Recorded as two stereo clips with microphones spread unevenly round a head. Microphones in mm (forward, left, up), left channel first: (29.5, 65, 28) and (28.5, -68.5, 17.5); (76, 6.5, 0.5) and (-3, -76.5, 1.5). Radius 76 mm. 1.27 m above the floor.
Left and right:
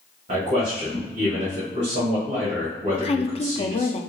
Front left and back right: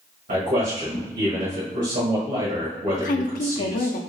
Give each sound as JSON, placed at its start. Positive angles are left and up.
{"t": 0.3, "sound": "a man speaking", "azimuth_deg": -140, "distance_m": 1.4}
{"t": 2.9, "sound": "a woman speaking", "azimuth_deg": 40, "distance_m": 0.5}